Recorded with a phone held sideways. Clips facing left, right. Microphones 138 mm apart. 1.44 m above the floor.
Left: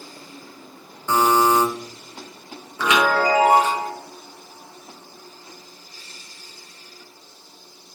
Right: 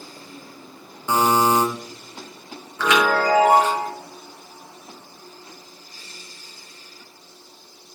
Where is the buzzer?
15° right (ahead or behind), 0.7 m.